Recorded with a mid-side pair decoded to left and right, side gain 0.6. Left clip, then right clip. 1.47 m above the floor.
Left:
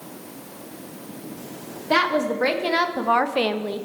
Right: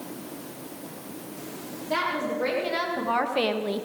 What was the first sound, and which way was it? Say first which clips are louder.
A woman speaking: left 7 dB; 50° left.